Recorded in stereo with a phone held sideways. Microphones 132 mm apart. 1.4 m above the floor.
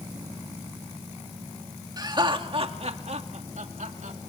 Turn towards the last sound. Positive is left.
turn(degrees=-85)